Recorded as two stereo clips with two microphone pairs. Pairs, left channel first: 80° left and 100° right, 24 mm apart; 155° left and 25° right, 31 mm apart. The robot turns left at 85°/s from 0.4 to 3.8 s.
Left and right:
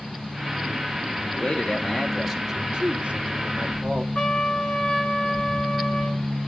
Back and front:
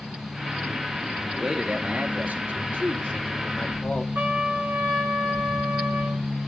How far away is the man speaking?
About 3 m.